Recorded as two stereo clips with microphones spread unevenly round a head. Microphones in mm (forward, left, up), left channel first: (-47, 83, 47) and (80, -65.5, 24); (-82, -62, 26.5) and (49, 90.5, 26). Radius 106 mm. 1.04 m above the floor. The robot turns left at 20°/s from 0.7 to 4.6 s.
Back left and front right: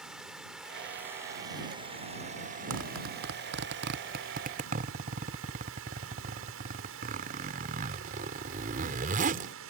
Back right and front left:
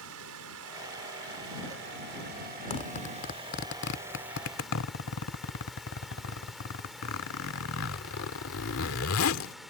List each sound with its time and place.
0.0 s running water: 40° left; by 9.7 s 40° right
2.7 s a zipper: 65° right; by 9.5 s 105° right